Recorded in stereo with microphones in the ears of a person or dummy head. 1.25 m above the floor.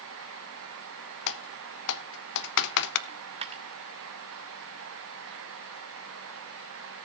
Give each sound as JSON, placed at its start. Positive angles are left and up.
{"t": 1.3, "sound": "typing on a keyboard", "side_deg": 60, "distance_m": 0.9}
{"t": 3.1, "sound": "a dropped coin", "side_deg": -25, "distance_m": 1.2}